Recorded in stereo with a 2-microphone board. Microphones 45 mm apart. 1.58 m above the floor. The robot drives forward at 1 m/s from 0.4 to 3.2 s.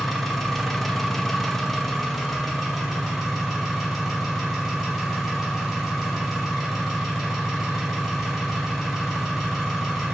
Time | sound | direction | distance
0.0 | an engine running | 5° left (ahead or behind) | 1.1 m